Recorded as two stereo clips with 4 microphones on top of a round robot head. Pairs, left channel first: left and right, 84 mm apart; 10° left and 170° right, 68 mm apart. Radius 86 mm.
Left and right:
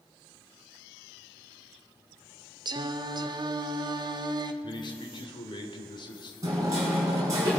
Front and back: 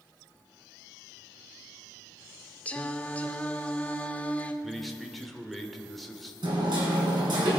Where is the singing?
60° right, 0.8 m.